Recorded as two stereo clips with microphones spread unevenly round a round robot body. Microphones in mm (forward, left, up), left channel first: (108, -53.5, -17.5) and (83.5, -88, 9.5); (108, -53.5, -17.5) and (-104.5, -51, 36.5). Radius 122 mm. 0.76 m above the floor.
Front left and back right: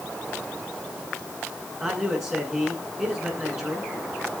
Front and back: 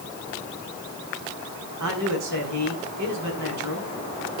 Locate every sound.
1.8 s a man speaking: 150° left, 8.5 m